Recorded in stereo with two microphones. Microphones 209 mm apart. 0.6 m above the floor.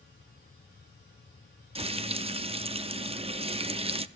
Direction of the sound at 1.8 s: 30° right (ahead or behind).